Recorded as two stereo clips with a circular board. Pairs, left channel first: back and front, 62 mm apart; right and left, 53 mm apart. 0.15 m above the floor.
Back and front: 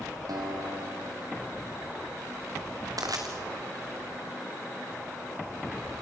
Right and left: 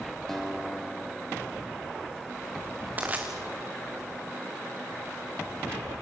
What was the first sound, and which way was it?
A guitar, 5° right.